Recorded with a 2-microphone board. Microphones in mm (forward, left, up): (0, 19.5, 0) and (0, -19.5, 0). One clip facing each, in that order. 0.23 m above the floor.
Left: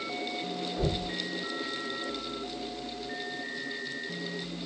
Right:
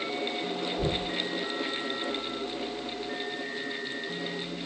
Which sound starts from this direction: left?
Knocking, at 0.8 s.